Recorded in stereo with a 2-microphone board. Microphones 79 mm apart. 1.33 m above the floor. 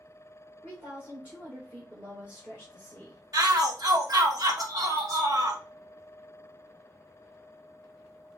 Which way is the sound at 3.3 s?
55° right (ahead or behind).